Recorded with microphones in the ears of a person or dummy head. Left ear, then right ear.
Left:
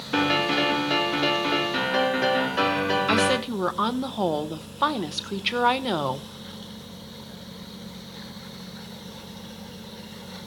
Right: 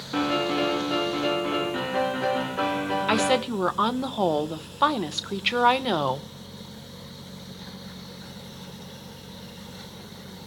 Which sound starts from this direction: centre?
A woman speaking, at 3.1 s.